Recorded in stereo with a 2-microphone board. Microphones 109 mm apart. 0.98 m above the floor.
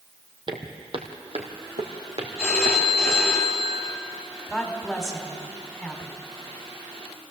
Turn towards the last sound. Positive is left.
turn(degrees=5)  # may be behind; listen again after turning